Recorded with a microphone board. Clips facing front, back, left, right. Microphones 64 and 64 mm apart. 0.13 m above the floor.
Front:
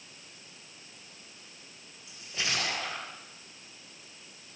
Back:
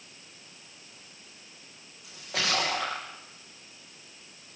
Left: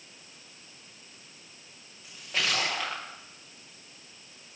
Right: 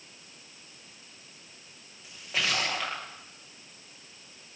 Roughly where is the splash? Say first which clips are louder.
Back 4 dB, even; behind.